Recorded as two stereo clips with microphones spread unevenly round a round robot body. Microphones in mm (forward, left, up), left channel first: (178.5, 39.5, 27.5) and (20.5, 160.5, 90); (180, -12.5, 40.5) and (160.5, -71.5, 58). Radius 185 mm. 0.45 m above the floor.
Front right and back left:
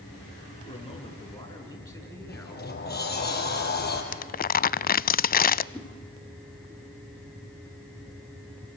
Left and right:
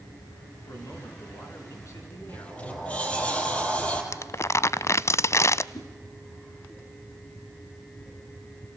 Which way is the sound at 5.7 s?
45° left.